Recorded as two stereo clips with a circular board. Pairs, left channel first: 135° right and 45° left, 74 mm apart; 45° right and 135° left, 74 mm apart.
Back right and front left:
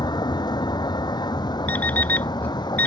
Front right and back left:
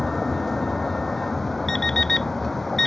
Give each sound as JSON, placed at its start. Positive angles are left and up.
{"t": 0.0, "sound": "a vehicle", "azimuth_deg": -130}
{"t": 1.7, "sound": "an alarm clock", "azimuth_deg": -120}